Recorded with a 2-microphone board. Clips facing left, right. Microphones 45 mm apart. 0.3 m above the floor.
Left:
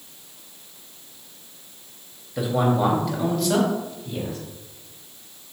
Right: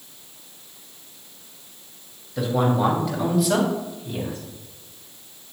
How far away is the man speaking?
About 1.5 m.